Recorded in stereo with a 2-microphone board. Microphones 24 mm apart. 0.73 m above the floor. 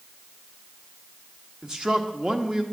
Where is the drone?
No drone in this recording.